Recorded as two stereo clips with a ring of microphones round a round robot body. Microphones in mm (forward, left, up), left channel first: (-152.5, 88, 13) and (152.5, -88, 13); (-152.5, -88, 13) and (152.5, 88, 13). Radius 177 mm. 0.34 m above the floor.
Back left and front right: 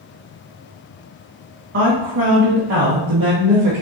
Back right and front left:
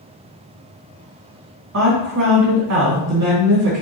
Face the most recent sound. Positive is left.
turn(degrees=5)